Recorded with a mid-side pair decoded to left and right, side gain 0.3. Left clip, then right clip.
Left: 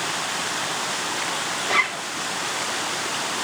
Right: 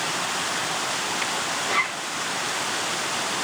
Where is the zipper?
65° left, 2 m.